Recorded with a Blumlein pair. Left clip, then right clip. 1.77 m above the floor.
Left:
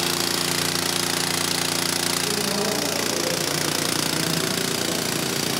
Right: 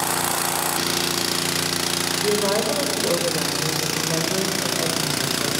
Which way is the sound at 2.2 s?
30° right.